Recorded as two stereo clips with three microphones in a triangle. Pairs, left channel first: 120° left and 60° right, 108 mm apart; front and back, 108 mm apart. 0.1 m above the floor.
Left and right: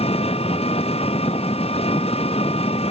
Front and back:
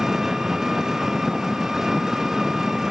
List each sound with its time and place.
0.0 s an engine running: 95° left